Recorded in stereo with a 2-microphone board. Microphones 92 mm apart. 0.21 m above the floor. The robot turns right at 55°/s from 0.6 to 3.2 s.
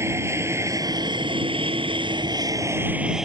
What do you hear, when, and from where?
0.0 s an aircraft: 30° right (ahead or behind); by 3.2 s 5° right (ahead or behind)